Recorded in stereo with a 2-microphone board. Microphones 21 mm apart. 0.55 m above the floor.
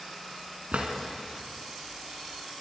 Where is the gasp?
No gasp in this recording.